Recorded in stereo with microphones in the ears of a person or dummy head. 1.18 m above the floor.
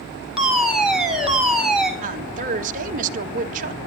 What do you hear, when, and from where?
0.4 s a fire alarm: 5° right (ahead or behind), 5.5 m
2.0 s a woman speaking: 45° right (ahead or behind), 1.8 m